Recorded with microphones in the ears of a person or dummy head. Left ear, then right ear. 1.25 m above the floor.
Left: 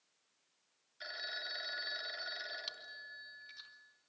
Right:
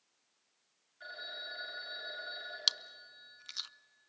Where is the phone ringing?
85° left, 3.5 m.